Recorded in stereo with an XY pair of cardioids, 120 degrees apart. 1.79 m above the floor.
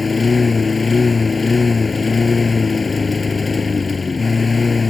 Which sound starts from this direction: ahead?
A lawn mower, at 0.0 s.